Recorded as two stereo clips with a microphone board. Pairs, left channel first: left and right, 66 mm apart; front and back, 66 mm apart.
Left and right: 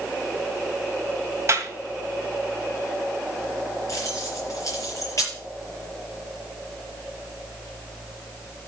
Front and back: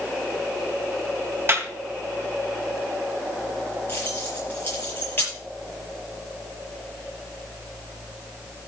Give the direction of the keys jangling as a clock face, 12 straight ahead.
10 o'clock.